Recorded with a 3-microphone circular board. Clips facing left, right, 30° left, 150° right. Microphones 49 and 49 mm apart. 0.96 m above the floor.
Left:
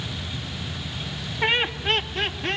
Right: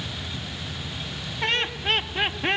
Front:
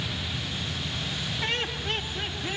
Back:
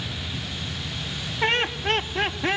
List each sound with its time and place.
1.4 s laughter: 160° left, 1.8 m; by 2.6 s 155° right, 1.8 m